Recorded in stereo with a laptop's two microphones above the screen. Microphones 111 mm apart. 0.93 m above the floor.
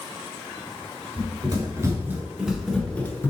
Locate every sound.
1.2 s running footsteps: 40° right (ahead or behind), 1.1 m; by 3.3 s 20° left (ahead or behind), 0.9 m